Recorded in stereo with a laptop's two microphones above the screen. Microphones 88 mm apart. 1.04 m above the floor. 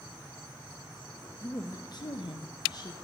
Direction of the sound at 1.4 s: 35° left (ahead or behind).